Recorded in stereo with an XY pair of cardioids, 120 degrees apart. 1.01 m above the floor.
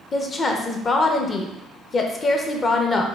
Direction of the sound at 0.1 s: 35° left.